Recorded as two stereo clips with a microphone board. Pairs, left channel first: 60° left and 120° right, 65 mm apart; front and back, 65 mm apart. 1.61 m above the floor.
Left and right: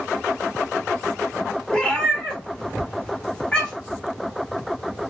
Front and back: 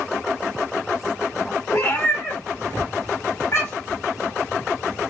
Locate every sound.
1.7 s a cat meowing: 10° right, 1.7 m